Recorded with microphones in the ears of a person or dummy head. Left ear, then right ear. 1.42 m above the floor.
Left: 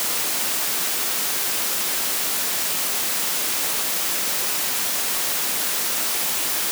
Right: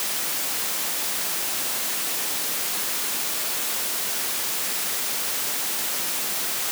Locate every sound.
Only background noise.